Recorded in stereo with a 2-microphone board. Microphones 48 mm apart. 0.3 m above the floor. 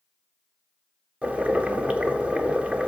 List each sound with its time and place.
1.2 s boiling: 30° right (ahead or behind), 1.1 m